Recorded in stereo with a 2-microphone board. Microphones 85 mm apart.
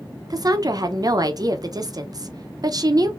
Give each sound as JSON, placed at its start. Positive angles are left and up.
{"t": 0.3, "sound": "a woman speaking", "side_deg": -45, "distance_m": 0.6}